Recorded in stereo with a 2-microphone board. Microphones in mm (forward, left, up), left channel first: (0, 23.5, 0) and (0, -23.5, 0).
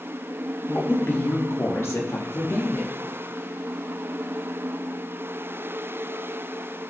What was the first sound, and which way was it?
A woman speaking, 55° left (ahead or behind).